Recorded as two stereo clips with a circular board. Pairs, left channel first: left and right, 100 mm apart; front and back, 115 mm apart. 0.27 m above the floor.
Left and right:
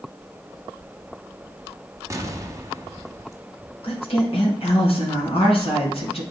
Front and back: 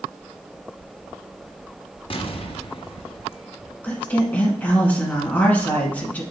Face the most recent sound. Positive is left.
turn(degrees=75)